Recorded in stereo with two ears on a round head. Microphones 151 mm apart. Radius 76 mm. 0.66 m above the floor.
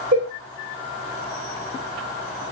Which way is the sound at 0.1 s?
70° right (ahead or behind).